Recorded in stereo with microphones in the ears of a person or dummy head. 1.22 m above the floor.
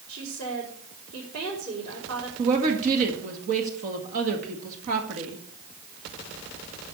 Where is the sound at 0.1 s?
65° right (ahead or behind), 5 m.